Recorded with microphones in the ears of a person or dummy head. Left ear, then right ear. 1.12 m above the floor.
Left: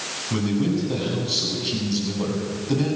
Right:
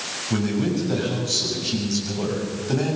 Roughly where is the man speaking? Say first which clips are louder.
Even; right.